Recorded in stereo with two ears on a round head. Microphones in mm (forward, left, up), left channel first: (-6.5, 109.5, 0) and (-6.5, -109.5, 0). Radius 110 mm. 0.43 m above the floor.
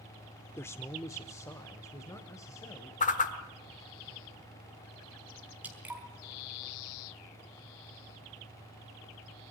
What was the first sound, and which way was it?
A man speaking, 10° left (ahead or behind).